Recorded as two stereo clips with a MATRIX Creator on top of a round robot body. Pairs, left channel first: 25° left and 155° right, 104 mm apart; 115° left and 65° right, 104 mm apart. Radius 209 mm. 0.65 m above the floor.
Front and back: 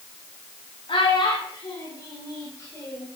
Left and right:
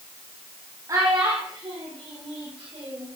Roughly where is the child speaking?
Ahead.